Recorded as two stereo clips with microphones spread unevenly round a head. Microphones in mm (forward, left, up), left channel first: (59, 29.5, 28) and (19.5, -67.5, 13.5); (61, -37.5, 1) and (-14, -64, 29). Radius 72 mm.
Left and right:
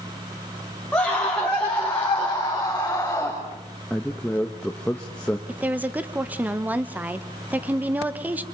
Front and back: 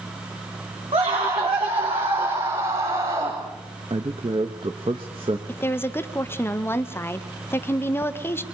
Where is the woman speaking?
40° right, 1.5 m.